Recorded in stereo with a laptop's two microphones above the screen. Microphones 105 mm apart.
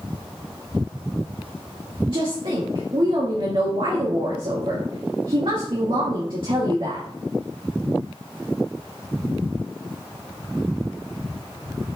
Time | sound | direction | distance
2.1 | a woman speaking | 55° right (ahead or behind) | 2.5 m